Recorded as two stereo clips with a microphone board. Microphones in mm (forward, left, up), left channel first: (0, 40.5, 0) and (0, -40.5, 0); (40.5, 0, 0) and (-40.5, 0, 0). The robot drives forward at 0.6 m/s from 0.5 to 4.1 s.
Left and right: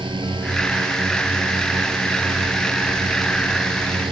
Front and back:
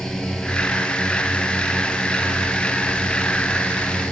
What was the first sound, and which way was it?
A drone, 85° right.